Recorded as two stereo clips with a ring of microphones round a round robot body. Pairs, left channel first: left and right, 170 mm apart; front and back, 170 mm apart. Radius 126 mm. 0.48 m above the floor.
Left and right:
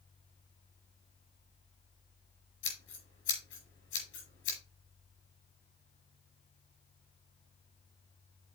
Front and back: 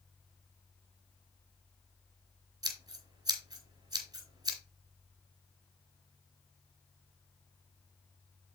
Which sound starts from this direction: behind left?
Scissors, at 2.6 s.